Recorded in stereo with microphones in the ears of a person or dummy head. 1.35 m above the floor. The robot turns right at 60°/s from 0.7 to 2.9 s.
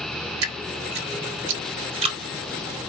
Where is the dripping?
65° right (ahead or behind), 1.1 m; by 2.2 s 20° right (ahead or behind), 1.1 m.